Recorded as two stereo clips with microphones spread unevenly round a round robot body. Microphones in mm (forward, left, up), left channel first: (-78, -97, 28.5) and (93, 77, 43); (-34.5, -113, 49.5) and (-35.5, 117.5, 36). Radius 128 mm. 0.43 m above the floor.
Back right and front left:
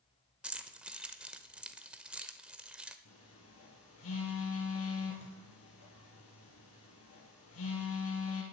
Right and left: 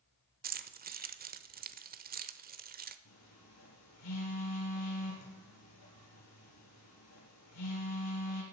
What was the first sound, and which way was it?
Keys jangling, 135° left.